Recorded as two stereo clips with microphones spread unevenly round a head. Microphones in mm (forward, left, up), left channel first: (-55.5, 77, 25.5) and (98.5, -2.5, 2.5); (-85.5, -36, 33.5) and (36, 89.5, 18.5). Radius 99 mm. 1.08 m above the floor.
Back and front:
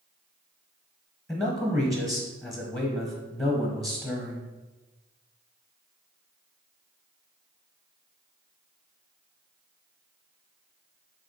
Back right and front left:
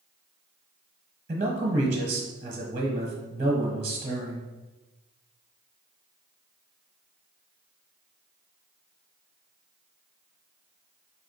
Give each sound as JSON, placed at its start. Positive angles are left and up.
{"t": 1.3, "sound": "a man speaking", "azimuth_deg": 70, "distance_m": 0.9}